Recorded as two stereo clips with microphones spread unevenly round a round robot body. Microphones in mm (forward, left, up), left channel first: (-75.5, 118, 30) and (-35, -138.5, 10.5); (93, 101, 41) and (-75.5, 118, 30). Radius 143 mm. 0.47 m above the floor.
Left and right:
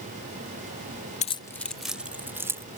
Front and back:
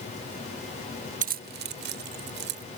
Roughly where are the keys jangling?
Behind.